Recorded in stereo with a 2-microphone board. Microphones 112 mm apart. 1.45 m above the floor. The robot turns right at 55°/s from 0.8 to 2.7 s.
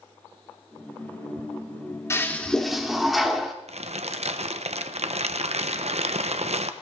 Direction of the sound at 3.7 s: 70° right (ahead or behind).